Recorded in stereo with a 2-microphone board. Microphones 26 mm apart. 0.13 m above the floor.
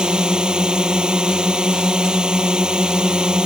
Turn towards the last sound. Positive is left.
turn(degrees=-30)  # may be behind; listen again after turning